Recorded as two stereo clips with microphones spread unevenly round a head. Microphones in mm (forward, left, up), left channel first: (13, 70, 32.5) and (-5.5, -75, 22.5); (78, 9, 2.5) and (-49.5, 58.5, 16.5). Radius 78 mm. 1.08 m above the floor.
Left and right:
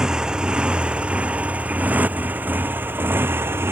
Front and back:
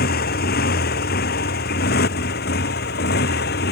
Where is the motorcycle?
15° right; by 3.7 s 25° right.